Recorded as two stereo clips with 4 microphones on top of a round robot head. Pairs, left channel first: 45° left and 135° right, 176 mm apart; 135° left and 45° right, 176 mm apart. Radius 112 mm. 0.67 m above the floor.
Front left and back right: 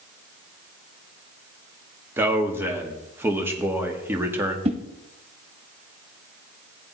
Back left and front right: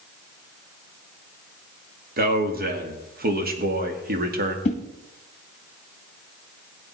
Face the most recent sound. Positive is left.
turn(degrees=175)